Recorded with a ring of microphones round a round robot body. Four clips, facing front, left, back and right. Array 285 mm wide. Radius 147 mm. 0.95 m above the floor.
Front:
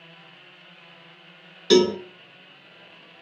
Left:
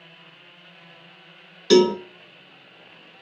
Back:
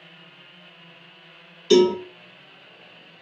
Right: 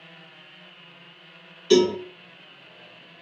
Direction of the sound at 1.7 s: 45° left.